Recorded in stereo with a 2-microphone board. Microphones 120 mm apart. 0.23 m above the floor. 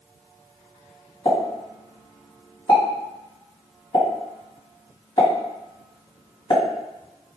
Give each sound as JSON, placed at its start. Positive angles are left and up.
{"t": 1.2, "sound": "a pop", "side_deg": 45, "distance_m": 1.8}